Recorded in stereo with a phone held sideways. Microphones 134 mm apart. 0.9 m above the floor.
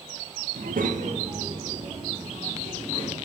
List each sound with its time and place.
0.6 s a child speaking: 75° right (ahead or behind), 0.6 m; by 3.1 s 15° right (ahead or behind), 2.5 m